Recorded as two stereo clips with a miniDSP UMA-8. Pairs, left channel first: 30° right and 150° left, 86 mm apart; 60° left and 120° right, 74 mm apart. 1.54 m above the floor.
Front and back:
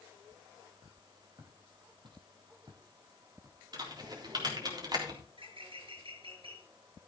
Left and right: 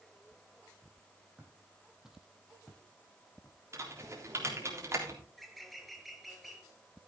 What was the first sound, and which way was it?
Footsteps, 170° left.